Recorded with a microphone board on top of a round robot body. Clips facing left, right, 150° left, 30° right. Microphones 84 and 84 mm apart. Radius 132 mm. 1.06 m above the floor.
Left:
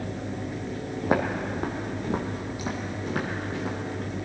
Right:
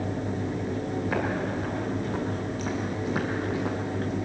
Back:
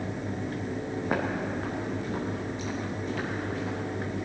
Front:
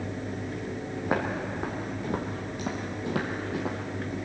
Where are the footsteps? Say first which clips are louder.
Left 5 dB, front 1 dB; 55° left, 2 m; by 4.2 s 35° right, 1.9 m.